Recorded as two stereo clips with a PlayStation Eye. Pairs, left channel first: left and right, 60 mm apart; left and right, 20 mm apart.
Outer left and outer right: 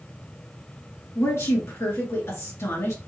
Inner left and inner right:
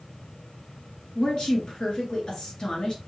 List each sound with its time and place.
1.1 s a woman speaking: 50° left (ahead or behind), 2.5 m